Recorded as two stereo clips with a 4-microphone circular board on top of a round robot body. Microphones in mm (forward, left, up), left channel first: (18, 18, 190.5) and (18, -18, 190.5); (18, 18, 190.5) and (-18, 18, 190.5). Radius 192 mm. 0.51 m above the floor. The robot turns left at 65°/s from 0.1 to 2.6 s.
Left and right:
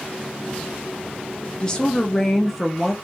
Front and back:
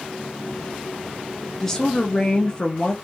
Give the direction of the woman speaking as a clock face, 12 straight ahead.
10 o'clock.